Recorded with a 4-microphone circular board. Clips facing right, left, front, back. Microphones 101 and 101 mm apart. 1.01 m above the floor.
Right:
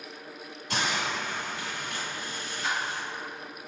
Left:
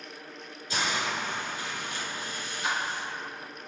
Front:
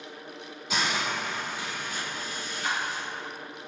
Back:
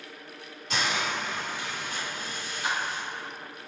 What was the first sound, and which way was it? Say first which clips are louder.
A hiss: even, even; 85° right.